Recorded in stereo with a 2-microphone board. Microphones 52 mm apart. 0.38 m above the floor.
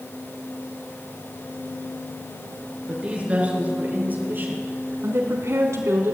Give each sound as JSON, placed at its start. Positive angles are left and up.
{"t": 2.9, "sound": "a woman speaking", "side_deg": -20, "distance_m": 5.5}